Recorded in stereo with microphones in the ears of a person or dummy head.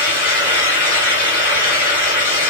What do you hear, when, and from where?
0.0 s a fan: 5° right (ahead or behind), 1.7 m